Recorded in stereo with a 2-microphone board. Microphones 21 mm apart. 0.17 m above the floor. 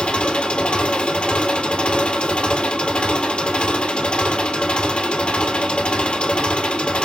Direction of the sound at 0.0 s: 70° left (ahead or behind).